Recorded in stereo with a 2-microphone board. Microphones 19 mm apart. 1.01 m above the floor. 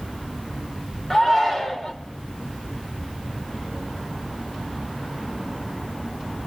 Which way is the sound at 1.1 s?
25° left (ahead or behind).